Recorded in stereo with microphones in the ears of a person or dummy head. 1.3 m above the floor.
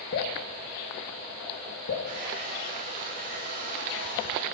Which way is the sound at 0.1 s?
65° left (ahead or behind).